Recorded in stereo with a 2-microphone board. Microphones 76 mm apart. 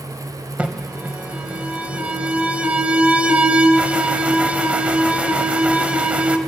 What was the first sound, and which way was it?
An alarm, 20° right (ahead or behind).